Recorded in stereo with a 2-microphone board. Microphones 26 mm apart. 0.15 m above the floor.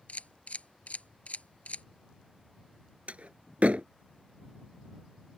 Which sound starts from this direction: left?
A camera shutter, at 0.1 s.